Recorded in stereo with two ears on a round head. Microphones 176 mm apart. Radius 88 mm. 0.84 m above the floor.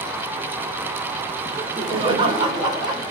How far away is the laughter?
About 3 m.